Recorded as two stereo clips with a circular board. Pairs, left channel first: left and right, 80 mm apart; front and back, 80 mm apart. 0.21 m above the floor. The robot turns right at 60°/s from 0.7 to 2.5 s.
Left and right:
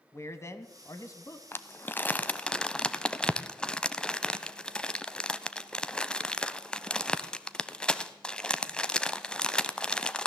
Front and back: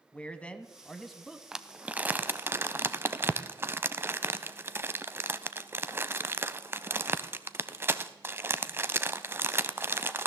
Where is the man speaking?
65° left, 1.2 m; by 1.4 s 110° left, 1.2 m.